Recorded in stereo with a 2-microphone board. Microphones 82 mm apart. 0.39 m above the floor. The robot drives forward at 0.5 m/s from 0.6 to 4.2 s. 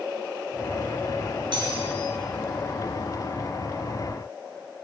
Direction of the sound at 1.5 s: 75° right (ahead or behind).